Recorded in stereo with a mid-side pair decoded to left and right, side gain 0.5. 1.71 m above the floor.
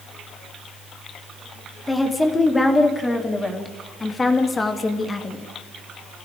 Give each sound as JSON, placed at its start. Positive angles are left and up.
{"t": 1.9, "sound": "a woman speaking", "azimuth_deg": 15, "distance_m": 4.5}